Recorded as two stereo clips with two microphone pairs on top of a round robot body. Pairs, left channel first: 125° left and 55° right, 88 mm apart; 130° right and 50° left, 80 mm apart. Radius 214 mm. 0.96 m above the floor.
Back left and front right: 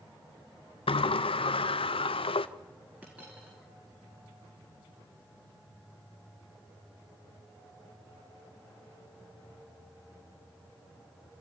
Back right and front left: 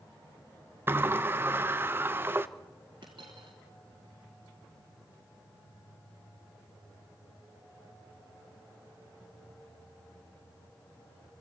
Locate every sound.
0.9 s a sliding door: 115° left, 0.7 m
3.0 s a dropped coin: 25° left, 1.1 m